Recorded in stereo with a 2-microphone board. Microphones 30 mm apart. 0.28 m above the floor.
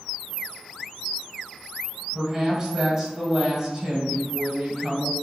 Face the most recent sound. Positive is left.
turn(degrees=-25)  # may be behind; listen again after turning